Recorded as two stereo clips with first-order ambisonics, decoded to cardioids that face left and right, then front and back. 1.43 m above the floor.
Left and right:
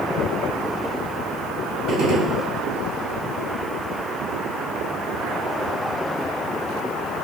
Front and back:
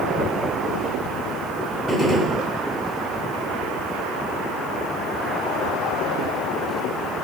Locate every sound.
1.9 s a gunshot: 75° right, 1.1 m